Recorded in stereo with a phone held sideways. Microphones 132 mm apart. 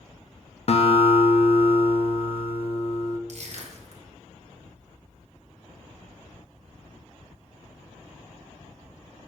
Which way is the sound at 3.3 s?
60° right (ahead or behind).